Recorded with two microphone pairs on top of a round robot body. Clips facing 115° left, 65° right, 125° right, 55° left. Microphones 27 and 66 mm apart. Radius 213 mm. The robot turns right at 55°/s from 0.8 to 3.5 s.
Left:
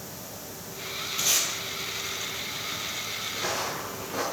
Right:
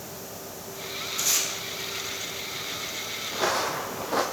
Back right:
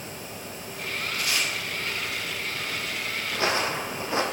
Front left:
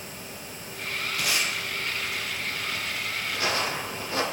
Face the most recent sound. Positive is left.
turn(degrees=-60)